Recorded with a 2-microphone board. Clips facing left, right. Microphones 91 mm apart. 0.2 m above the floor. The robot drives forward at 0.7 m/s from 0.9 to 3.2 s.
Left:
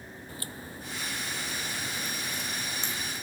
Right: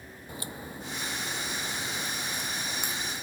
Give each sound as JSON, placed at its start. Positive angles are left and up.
{"t": 0.3, "sound": "a crack", "side_deg": -20}